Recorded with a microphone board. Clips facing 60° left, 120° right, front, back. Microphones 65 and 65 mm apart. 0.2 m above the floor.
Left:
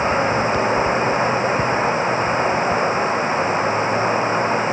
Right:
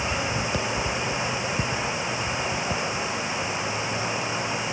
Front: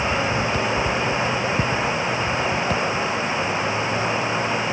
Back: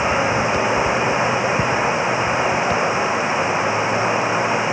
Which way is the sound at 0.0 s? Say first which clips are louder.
Left 9 dB, back 4 dB; 110° left.